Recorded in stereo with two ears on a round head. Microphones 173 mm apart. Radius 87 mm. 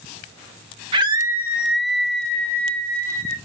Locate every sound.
0.9 s a scream: 25° right (ahead or behind), 1.3 m; by 3.4 s 15° left (ahead or behind), 3.5 m